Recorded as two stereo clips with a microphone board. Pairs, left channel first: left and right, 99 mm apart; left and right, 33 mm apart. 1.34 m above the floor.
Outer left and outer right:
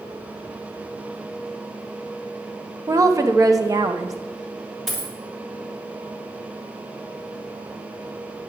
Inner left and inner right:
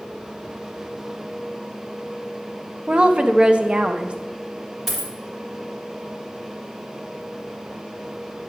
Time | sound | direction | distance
2.9 | a woman speaking | 35° right (ahead or behind) | 0.6 m
4.9 | a dropped coin | centre (ahead or behind) | 1.6 m